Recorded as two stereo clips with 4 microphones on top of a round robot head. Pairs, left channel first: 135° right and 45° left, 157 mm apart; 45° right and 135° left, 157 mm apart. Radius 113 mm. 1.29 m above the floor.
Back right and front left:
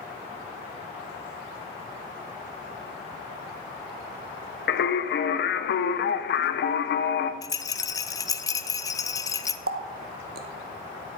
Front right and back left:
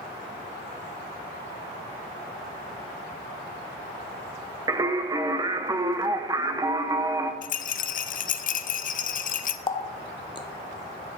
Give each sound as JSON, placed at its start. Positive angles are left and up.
{"t": 4.7, "sound": "singing", "azimuth_deg": -155, "distance_m": 0.7}
{"t": 7.4, "sound": "a rattle", "azimuth_deg": -70, "distance_m": 0.7}
{"t": 9.7, "sound": "a running tap", "azimuth_deg": 20, "distance_m": 0.6}